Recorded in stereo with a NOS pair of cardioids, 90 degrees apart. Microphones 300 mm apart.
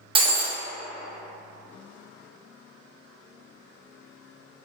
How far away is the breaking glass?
About 0.5 m.